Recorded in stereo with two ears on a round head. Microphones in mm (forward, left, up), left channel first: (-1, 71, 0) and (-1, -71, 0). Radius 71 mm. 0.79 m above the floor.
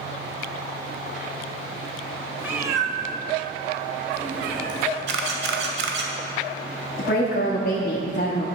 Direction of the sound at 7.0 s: 60° left (ahead or behind).